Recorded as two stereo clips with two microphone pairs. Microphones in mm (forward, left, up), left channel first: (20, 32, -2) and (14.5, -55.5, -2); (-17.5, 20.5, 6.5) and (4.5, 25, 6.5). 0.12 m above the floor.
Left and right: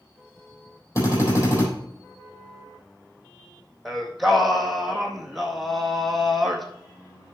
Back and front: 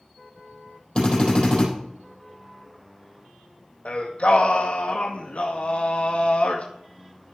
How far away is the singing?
About 1.4 m.